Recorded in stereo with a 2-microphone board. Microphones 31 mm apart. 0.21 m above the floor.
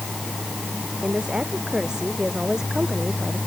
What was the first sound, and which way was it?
A woman speaking, 35° right (ahead or behind).